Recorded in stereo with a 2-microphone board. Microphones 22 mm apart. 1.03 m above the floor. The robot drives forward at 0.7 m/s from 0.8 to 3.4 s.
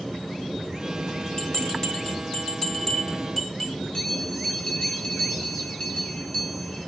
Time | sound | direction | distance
1.4 | a bell | 50° left (ahead or behind) | 1.8 m
3.9 | a bell | 40° left (ahead or behind) | 4 m